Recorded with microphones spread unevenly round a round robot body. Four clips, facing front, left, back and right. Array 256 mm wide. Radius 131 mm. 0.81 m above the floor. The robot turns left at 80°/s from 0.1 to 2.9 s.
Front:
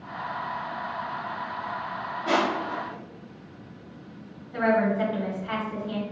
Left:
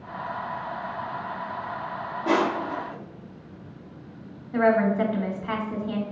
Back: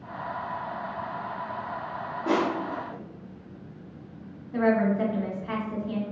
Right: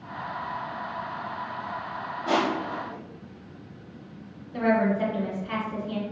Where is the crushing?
125° left, 0.8 m; by 3.0 s 70° left, 0.8 m.